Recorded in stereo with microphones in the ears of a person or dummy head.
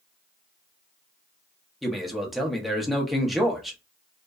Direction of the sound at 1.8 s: Centre (ahead or behind).